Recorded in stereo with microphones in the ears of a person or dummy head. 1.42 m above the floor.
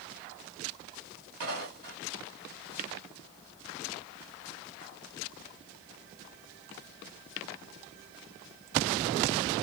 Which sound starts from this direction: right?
Footsteps, at 1.4 s.